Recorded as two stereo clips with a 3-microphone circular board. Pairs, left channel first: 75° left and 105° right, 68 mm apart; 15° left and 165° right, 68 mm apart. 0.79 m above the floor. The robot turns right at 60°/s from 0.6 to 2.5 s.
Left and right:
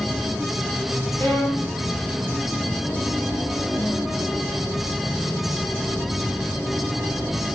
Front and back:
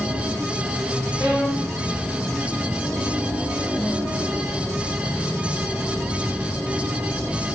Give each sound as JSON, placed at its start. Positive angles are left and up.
{"t": 1.2, "sound": "a violin", "azimuth_deg": -85, "distance_m": 5.0}